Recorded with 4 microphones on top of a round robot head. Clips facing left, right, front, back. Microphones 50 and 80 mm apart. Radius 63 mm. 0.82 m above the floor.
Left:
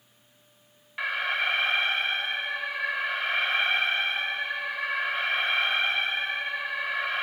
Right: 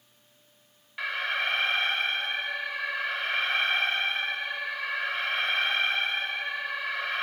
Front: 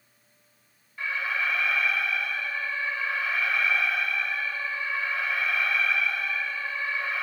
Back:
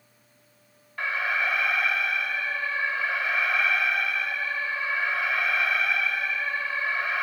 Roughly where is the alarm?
Behind.